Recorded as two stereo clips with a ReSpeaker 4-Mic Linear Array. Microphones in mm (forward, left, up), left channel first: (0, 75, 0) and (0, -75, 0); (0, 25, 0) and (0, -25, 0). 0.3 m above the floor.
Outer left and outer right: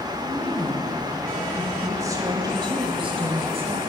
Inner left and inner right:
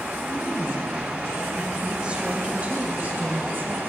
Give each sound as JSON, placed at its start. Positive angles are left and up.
{"t": 0.2, "sound": "a woman speaking", "side_deg": 10, "distance_m": 1.6}